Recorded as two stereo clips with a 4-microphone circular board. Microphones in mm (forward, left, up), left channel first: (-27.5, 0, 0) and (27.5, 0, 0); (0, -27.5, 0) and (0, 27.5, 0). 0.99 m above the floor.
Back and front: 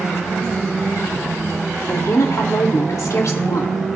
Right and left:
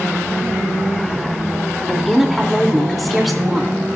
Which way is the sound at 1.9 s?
Straight behind.